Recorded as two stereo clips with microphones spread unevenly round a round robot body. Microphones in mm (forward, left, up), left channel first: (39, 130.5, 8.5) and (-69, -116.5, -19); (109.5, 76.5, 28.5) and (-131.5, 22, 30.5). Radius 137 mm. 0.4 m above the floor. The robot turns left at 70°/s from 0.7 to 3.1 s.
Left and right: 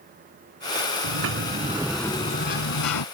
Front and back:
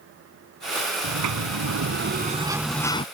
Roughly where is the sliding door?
Behind right.